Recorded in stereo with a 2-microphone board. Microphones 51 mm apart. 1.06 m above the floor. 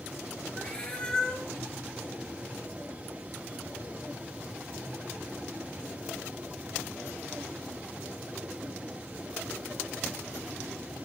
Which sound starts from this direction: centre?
A cat meowing, at 0.6 s.